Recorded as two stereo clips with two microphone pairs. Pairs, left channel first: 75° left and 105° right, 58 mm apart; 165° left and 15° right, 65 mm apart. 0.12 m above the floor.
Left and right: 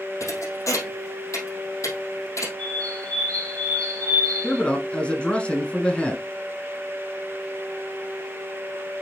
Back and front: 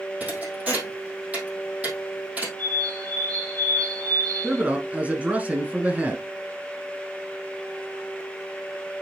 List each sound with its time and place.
0.2 s a thud: 50° left, 2.5 m
2.6 s a bird: 5° left, 1.3 m
4.4 s a man speaking: 25° left, 1.1 m